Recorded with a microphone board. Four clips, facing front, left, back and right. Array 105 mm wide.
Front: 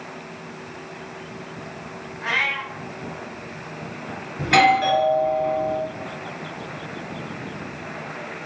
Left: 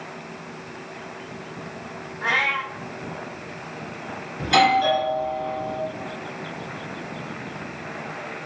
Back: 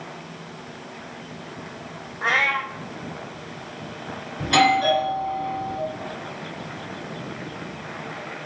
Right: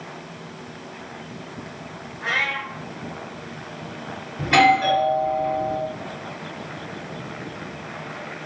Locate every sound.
2.2 s a cat meowing: 160° left, 0.8 m
4.4 s a doorbell: 40° right, 1.9 m